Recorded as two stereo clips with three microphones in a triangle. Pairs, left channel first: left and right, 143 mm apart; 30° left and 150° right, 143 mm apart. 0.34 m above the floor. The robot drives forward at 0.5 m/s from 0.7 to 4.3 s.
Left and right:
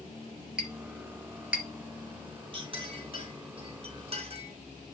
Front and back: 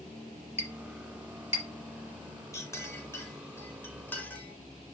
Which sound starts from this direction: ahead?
A clink, at 0.6 s.